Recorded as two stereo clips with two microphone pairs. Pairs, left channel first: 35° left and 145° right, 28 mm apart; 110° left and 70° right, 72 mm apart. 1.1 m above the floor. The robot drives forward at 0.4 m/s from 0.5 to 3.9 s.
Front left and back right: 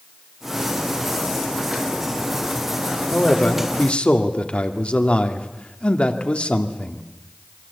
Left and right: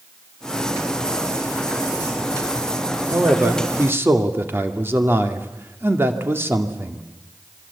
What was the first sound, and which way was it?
A man speaking, 10° right.